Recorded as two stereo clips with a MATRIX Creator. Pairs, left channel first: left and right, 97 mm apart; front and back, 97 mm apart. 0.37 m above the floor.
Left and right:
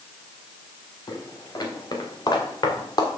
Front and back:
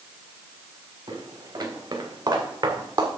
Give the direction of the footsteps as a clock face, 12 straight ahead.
7 o'clock.